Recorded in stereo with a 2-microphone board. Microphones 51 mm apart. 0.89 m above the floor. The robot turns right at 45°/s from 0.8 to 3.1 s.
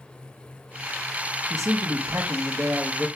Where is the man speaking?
85° right, 1.2 m; by 3.1 s 15° right, 1.2 m.